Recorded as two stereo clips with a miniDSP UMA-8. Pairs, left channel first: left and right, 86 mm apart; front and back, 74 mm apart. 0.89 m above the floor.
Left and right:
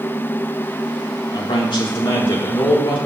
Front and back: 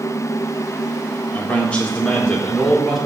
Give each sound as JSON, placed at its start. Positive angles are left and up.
{"t": 1.3, "sound": "a man speaking", "azimuth_deg": 65, "distance_m": 3.0}